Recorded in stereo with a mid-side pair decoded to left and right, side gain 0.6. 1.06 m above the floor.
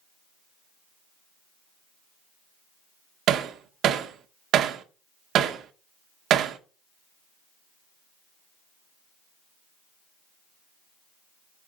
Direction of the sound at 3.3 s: 55° right.